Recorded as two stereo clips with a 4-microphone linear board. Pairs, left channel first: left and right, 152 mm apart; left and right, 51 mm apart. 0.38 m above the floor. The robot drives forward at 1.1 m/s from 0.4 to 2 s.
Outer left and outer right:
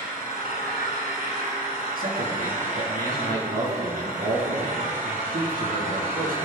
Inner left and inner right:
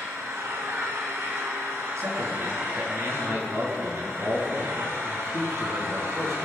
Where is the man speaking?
70° right (ahead or behind), 4.5 m.